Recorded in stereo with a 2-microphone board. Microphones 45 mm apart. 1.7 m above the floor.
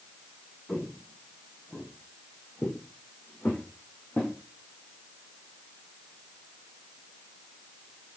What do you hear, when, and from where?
0.7 s footsteps: 20° left (ahead or behind), 6.5 m; by 4.3 s 40° left (ahead or behind), 7 m